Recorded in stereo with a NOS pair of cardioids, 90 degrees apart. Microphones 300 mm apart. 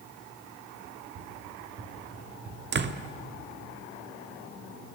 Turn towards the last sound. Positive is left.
turn(degrees=-35)